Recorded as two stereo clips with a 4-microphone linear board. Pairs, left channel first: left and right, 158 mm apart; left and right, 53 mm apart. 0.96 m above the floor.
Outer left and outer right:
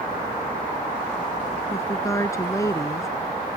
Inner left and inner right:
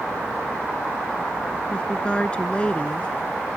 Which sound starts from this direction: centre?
A woman speaking, at 1.7 s.